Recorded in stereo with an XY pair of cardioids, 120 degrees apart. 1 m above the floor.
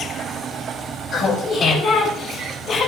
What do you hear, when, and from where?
1.1 s laughter: 55° left, 10 m; by 2.9 s 60° left, 8.5 m